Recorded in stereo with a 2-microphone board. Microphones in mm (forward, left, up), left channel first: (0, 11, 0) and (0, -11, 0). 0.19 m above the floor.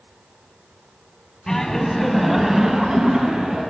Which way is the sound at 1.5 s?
25° left (ahead or behind).